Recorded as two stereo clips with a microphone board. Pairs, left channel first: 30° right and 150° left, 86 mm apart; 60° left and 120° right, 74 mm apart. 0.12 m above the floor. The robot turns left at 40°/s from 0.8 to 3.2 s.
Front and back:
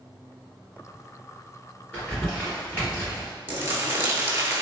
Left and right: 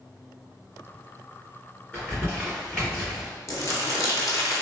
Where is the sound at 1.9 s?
20° left, 1.8 m; by 3.3 s 30° right, 1.8 m.